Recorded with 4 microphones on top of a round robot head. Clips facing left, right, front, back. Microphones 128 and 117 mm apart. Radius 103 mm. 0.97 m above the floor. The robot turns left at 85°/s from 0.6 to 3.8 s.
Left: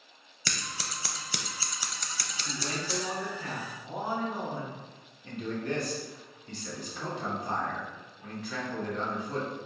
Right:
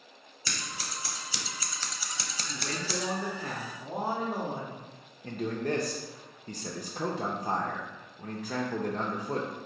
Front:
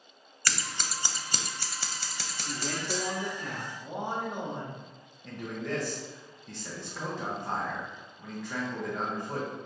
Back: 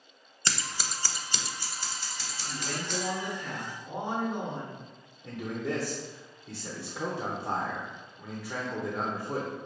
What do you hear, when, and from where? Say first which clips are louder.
0.5 s scissors: left 1 dB, even; 115° left, 0.5 m; by 3.1 s 100° right, 0.5 m
2.5 s a man speaking: left 1 dB, front 2 dB; 55° left, 1.0 m; by 4.8 s 60° right, 1.0 m
5.2 s a man speaking: right 2 dB, back 2 dB; 100° right, 0.6 m